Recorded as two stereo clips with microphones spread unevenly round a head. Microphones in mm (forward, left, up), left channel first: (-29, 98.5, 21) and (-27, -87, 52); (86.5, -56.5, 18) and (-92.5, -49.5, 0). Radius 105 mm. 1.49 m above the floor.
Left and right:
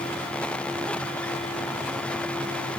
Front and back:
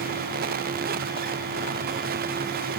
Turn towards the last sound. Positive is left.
No sound to turn to.